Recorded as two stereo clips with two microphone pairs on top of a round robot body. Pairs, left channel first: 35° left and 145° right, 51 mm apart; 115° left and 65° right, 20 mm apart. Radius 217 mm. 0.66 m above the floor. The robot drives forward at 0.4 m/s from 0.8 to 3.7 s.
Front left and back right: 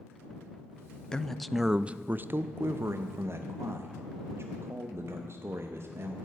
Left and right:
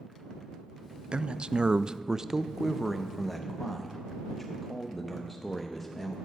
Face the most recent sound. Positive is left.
turn(degrees=-165)